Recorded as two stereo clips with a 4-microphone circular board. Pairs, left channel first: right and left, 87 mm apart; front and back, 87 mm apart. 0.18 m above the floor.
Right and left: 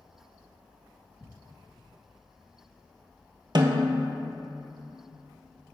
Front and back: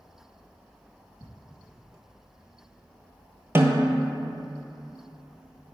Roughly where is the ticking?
Behind.